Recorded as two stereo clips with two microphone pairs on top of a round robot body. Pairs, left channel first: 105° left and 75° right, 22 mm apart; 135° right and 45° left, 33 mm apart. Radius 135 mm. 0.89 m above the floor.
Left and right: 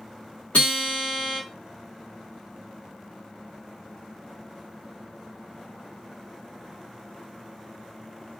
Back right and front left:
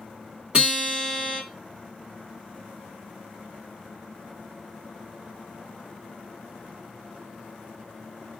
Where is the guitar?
95° left, 1.9 m.